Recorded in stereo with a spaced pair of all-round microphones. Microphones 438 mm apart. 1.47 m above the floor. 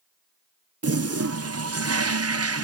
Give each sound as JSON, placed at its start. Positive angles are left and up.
{"t": 0.8, "sound": "a toilet flushing", "side_deg": -35, "distance_m": 0.6}